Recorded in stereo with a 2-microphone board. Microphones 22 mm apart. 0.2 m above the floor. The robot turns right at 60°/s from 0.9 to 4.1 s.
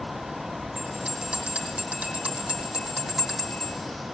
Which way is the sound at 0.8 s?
155° right.